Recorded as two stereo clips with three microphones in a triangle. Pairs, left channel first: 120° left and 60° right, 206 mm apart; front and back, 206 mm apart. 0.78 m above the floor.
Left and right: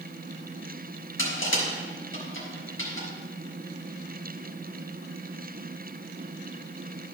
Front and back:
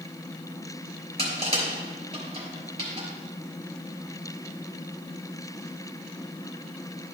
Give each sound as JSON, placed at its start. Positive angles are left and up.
{"t": 1.2, "sound": "crushing", "azimuth_deg": 120, "distance_m": 3.5}